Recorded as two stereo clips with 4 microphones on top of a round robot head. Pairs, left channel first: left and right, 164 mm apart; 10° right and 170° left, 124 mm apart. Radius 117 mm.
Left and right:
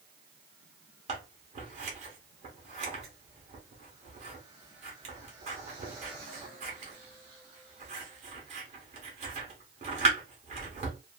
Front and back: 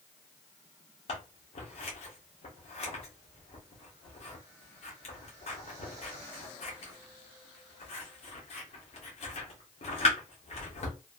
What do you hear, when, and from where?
1.1 s scissors: 40° right, 1.1 m